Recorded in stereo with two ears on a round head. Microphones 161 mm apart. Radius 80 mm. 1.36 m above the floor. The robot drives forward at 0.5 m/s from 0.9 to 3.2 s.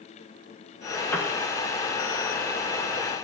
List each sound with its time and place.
1.1 s a piano: 10° left (ahead or behind), 1.3 m